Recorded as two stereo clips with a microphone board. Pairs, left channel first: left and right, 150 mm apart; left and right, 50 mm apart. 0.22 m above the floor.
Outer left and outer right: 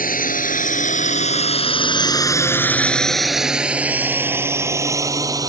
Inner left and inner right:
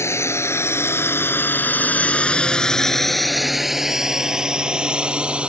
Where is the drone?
70° left (ahead or behind); by 5.5 s 25° right (ahead or behind).